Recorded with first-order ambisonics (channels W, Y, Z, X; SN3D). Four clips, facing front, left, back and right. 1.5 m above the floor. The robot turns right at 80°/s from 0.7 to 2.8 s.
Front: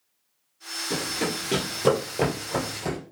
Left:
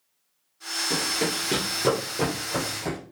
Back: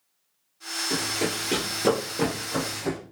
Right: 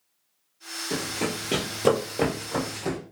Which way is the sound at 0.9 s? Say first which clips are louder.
Left 2 dB, even; 45° left.